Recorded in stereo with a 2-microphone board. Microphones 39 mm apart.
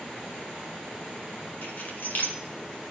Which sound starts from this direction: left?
Keys jangling, at 1.6 s.